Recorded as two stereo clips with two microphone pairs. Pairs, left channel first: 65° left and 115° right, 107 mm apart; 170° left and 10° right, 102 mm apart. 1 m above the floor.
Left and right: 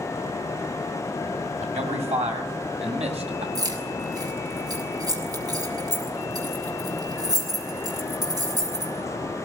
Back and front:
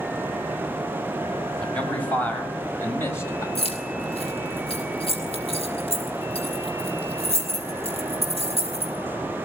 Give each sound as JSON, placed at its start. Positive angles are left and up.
{"t": 1.6, "sound": "a man speaking", "azimuth_deg": -110, "distance_m": 6.5}
{"t": 3.5, "sound": "keys jangling", "azimuth_deg": -170, "distance_m": 6.0}